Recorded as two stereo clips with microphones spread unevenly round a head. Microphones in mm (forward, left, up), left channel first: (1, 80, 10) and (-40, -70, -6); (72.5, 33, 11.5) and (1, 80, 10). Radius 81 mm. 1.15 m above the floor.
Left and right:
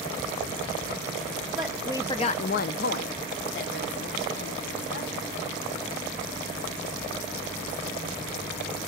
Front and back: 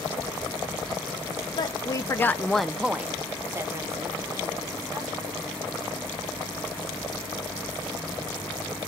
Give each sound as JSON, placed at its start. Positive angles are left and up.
{"t": 1.6, "sound": "a woman speaking", "azimuth_deg": -25, "distance_m": 0.6}